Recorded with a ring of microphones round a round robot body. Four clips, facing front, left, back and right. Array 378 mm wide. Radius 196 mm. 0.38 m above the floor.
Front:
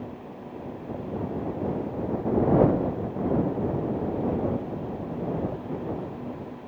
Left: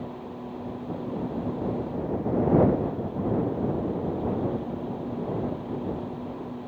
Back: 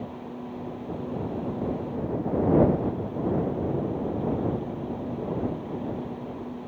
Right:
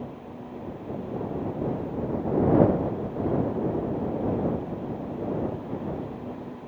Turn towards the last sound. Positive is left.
No sound to turn to.